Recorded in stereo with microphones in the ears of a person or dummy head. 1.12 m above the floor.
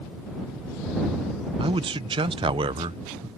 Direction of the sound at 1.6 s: 20° right (ahead or behind).